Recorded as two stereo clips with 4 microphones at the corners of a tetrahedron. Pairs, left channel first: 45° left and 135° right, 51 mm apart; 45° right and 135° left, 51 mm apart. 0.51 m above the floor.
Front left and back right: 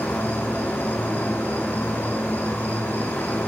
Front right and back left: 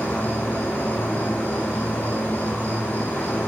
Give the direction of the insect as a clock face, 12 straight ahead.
12 o'clock.